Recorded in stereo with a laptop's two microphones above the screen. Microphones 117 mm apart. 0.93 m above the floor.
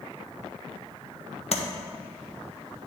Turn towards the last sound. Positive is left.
turn(degrees=60)  # may be behind; listen again after turning